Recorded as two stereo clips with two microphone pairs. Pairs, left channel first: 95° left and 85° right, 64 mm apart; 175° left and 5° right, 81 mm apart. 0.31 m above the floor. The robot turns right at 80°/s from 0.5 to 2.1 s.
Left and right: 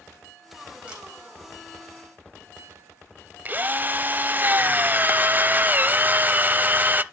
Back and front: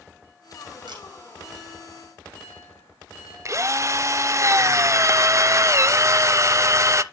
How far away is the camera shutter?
About 5 m.